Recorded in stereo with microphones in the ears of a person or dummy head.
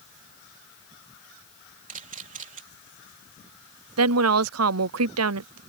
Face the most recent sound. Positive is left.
turn(degrees=-85)